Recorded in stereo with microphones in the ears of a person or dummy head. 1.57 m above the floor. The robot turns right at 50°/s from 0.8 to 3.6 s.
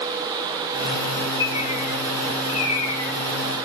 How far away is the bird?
About 1.5 m.